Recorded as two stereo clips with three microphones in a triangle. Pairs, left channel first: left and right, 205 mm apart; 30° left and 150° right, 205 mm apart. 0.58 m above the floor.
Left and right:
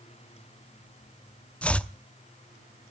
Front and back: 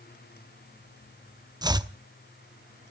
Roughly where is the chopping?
Behind.